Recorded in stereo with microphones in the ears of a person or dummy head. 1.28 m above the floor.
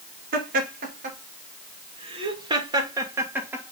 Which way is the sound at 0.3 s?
45° right (ahead or behind).